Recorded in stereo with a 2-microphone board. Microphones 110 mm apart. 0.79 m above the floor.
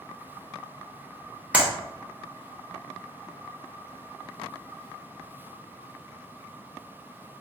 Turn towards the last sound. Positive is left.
turn(degrees=-10)  # may be behind; listen again after turning